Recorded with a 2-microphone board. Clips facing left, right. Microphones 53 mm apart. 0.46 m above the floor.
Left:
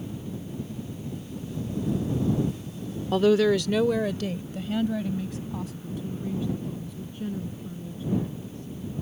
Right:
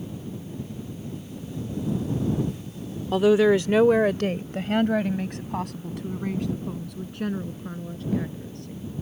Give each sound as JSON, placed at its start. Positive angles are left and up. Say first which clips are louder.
{"t": 3.1, "sound": "a woman speaking", "louder": "right 2 dB", "side_deg": -5}